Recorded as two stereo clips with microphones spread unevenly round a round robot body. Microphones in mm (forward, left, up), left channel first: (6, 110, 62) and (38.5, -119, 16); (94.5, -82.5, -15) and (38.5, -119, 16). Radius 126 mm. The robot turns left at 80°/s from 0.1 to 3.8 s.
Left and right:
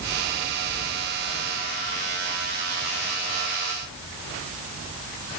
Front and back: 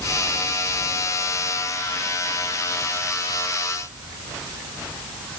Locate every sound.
Only background noise.